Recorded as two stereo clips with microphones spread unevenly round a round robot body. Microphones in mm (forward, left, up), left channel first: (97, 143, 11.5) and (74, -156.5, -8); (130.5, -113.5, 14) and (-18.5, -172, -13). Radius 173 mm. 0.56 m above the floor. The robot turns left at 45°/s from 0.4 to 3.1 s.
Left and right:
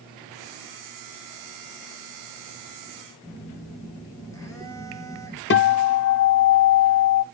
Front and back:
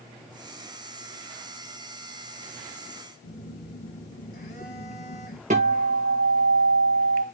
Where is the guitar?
145° left, 0.5 m.